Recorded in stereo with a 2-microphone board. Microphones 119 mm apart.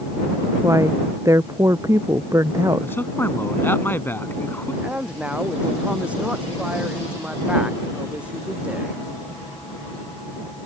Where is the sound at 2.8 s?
20° left (ahead or behind).